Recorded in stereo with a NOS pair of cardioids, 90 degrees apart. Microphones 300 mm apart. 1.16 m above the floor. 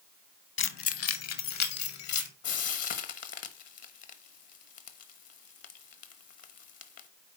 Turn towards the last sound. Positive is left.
turn(degrees=60)